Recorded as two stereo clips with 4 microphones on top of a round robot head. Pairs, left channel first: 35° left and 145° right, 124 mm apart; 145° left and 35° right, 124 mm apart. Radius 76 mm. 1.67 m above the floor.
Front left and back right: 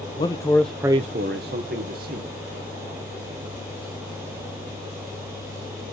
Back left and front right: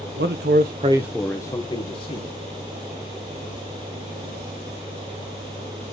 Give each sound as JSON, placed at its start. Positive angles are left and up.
{"t": 0.2, "sound": "a man speaking", "azimuth_deg": -25, "distance_m": 1.2}